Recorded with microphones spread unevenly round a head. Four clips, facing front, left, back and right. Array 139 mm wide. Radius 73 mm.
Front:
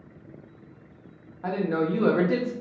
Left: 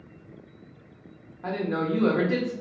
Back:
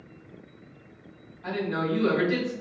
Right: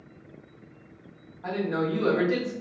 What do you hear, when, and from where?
1.4 s a man speaking: 25° left, 0.7 m